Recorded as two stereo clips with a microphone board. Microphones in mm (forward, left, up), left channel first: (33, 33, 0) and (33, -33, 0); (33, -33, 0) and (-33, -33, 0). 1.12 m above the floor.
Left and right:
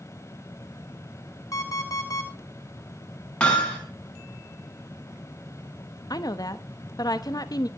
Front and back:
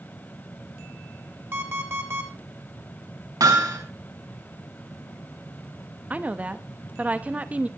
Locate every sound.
1.5 s an alarm clock: 125° left, 3 m
3.4 s hammering: 165° left, 5.5 m
6.1 s a woman speaking: 110° left, 1.1 m